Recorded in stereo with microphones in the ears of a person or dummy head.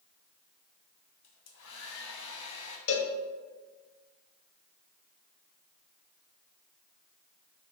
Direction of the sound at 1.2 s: 70° left (ahead or behind).